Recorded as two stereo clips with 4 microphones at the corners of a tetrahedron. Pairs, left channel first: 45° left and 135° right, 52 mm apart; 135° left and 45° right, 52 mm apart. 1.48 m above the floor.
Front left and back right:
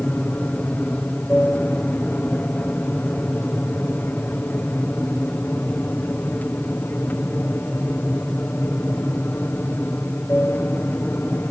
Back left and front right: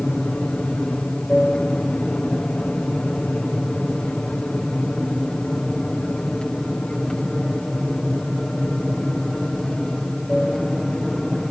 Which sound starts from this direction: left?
An aircraft, at 0.0 s.